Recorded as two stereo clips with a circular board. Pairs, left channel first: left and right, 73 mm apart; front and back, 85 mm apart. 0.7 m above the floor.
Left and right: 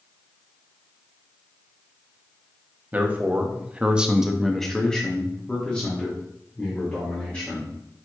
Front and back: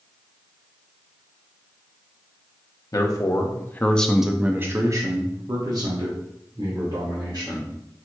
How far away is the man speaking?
About 0.9 m.